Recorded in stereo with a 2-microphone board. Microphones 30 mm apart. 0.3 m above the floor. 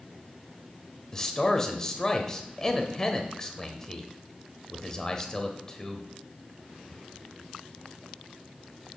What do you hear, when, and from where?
1.1 s a man speaking: 20° left (ahead or behind), 1.0 m